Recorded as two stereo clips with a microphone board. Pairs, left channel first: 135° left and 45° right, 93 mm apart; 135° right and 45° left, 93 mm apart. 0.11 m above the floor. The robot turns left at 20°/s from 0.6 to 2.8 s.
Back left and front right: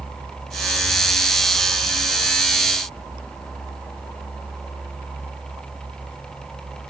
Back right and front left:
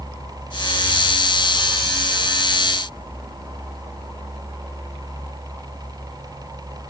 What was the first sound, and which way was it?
Only background noise.